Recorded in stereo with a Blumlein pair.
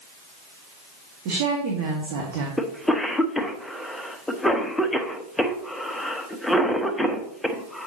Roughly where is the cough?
Ahead.